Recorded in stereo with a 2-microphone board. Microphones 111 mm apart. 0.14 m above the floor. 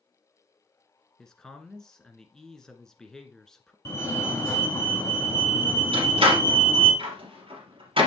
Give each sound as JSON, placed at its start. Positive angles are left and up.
{"t": 1.2, "sound": "a man speaking", "side_deg": 5, "distance_m": 1.4}
{"t": 3.9, "sound": "a fire alarm", "side_deg": 30, "distance_m": 2.5}
{"t": 5.9, "sound": "a door slam", "side_deg": -55, "distance_m": 2.5}